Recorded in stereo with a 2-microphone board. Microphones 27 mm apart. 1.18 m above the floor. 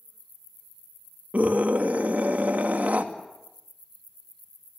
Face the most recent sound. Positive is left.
turn(degrees=-75)  # may be behind; listen again after turning